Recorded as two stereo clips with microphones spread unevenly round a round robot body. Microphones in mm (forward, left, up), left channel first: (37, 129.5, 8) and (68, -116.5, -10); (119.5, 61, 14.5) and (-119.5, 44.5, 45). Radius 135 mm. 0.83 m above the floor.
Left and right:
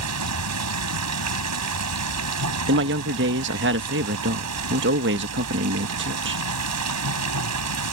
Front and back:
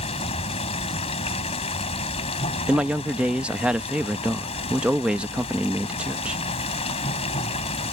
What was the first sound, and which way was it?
Running water, 65° right.